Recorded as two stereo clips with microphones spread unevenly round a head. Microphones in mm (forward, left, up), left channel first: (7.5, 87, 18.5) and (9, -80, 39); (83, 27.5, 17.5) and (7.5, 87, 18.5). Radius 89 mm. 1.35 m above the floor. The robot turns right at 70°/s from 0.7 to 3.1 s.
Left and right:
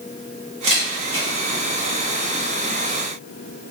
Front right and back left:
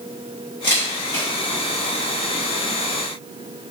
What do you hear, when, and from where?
0.6 s a camera shutter: 100° right, 1.4 m; by 1.3 s 60° right, 1.4 m